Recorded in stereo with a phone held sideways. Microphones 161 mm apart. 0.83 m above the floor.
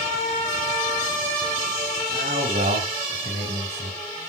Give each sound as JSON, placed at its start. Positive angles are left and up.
{"t": 2.1, "sound": "a man speaking", "side_deg": -80, "distance_m": 5.0}